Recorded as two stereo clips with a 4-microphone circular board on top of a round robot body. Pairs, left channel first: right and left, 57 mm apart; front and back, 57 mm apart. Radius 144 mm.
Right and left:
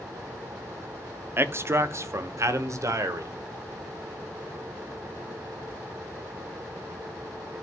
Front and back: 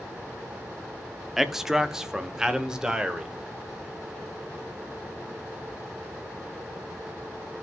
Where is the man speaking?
95° left, 1.0 m; by 3.3 s 105° left, 1.8 m.